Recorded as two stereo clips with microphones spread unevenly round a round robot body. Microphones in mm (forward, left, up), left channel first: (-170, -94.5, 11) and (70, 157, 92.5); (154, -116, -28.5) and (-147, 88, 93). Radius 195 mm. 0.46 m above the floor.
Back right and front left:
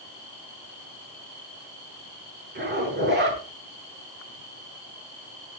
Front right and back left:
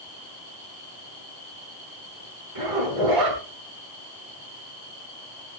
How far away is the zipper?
About 7.5 m.